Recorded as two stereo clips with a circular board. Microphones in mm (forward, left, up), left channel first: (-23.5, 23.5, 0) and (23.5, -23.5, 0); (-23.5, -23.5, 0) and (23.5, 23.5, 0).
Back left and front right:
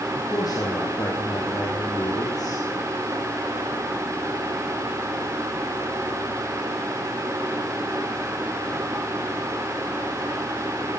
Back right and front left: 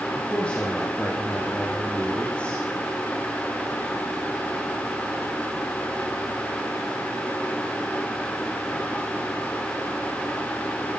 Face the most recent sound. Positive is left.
turn(degrees=150)